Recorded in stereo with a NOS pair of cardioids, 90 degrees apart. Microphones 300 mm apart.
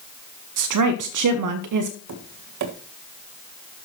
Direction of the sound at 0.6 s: 70° right.